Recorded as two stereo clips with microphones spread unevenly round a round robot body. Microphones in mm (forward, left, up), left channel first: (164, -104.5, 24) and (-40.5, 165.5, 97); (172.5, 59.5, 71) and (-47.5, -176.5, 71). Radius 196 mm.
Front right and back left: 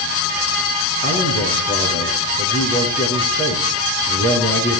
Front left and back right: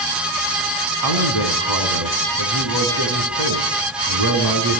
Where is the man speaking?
120° right, 5.5 m.